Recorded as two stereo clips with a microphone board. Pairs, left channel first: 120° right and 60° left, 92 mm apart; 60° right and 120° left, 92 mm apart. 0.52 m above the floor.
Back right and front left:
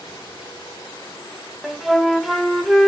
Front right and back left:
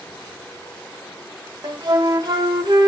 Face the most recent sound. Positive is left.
turn(degrees=150)